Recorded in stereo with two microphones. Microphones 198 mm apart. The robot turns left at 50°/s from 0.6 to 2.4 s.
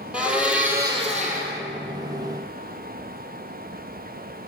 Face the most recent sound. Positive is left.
turn(degrees=-95)